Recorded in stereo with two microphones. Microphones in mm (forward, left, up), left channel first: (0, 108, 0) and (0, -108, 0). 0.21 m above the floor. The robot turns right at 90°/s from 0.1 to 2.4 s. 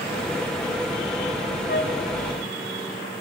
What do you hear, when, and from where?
1.7 s a flute: 50° left (ahead or behind), 1.5 m; by 2.0 s 45° left (ahead or behind), 1.5 m